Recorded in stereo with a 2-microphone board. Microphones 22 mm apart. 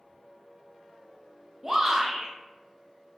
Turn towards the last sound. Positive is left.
turn(degrees=-15)  # may be behind; listen again after turning